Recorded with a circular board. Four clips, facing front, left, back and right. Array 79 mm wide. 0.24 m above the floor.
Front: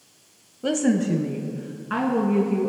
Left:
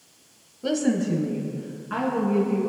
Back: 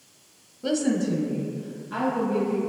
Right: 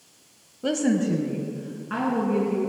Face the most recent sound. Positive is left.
turn(degrees=-10)